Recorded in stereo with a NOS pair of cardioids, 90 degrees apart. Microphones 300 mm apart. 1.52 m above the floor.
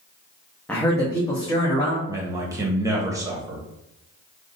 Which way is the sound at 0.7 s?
5° left.